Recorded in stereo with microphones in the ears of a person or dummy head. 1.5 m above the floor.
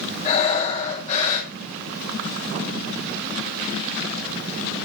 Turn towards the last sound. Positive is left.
turn(degrees=35)  # may be behind; listen again after turning